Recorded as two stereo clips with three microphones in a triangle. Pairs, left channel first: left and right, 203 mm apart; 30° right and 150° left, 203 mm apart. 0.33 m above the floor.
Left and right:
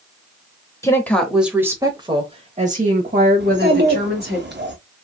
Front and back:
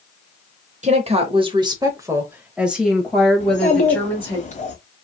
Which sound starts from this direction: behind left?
A woman speaking, at 0.8 s.